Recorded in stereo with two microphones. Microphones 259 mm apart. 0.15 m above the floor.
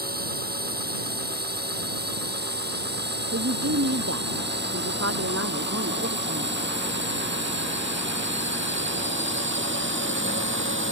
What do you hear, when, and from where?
0.0 s a drone: 35° right (ahead or behind); by 10.9 s 50° right (ahead or behind)
3.3 s a woman speaking: 65° right (ahead or behind)